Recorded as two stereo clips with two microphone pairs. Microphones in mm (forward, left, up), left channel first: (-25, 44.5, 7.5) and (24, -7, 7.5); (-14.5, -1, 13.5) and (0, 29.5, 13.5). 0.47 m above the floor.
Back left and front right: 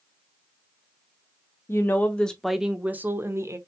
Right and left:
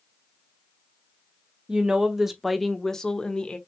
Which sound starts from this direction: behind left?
A woman speaking, at 1.7 s.